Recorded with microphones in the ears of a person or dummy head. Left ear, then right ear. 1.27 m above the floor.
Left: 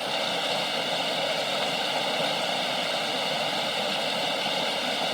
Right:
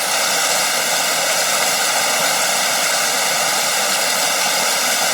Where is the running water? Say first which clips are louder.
Right 9 dB; 60° right (ahead or behind).